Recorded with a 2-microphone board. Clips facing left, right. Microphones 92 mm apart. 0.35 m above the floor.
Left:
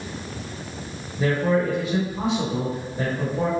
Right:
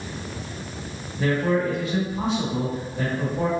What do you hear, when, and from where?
1.2 s a man speaking: 20° left (ahead or behind), 1.0 m